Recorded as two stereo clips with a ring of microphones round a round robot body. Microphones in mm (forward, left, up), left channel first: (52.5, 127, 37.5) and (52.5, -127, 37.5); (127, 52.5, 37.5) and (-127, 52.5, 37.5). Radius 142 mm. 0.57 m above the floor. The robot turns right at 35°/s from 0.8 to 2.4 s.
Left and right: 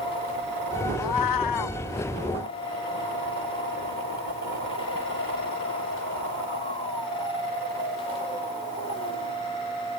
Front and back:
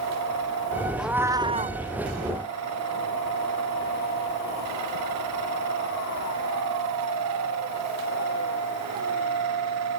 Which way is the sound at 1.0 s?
90° left.